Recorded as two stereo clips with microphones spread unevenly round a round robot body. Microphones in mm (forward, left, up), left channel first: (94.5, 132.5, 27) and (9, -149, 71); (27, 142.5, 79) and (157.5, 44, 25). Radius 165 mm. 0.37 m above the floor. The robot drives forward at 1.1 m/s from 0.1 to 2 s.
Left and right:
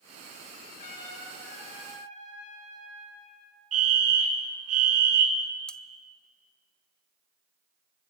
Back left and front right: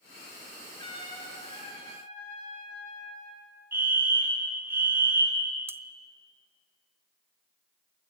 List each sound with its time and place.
0.8 s a trumpet: 80° left, 6.5 m; by 3.4 s 90° left, 6.5 m
3.7 s a fire alarm: 85° right, 2.5 m
5.7 s cutlery clinking: straight ahead, 0.7 m